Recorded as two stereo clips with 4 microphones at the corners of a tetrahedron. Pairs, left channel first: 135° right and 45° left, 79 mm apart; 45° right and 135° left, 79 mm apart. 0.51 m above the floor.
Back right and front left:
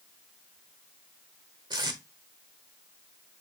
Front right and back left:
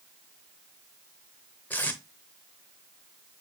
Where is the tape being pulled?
20° left, 0.9 m.